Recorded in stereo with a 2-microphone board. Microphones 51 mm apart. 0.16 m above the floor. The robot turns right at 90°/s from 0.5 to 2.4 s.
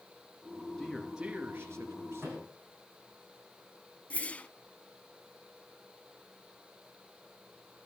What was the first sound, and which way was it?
A man speaking, 160° left.